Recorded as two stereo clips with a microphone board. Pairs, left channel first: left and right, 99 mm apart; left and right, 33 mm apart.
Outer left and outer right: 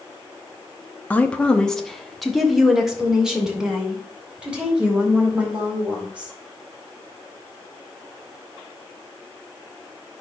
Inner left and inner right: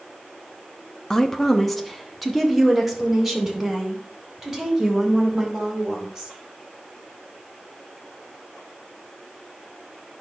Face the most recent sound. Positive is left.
turn(degrees=-15)  # may be behind; listen again after turning